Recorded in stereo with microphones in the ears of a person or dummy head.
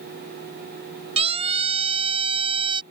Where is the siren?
30° right (ahead or behind); by 2.8 s 25° right (ahead or behind).